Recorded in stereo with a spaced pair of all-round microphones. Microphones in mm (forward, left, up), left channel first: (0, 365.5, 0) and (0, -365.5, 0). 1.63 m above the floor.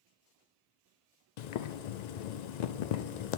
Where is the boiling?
70° left (ahead or behind), 0.6 m.